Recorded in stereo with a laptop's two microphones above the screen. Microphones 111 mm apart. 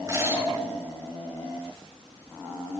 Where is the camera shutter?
35° right (ahead or behind), 7 m.